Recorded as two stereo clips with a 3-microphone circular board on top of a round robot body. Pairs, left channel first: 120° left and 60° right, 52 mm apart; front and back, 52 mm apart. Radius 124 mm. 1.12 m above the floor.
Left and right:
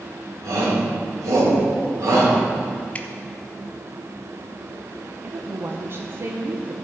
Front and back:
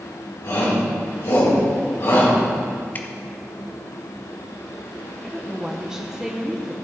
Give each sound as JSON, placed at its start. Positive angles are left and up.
{"t": 0.4, "sound": "a shout", "azimuth_deg": -40, "distance_m": 4.5}
{"t": 3.0, "sound": "dripping", "azimuth_deg": 55, "distance_m": 0.9}
{"t": 5.2, "sound": "a woman speaking", "azimuth_deg": -100, "distance_m": 1.0}